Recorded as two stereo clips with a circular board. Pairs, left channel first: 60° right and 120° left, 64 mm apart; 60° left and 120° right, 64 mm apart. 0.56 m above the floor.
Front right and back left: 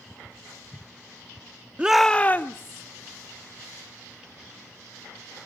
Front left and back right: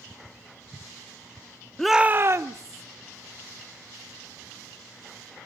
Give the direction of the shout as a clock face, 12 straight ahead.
8 o'clock.